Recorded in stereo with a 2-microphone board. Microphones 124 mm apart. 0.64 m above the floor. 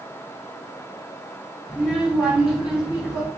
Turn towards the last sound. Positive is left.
turn(degrees=0)  # may be behind; listen again after turning